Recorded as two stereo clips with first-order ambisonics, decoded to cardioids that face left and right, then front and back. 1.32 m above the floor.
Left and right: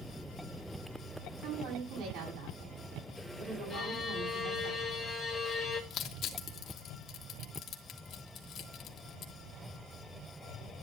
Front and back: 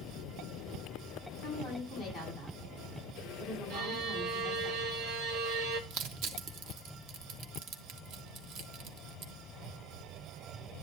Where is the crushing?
145° left, 1.5 m.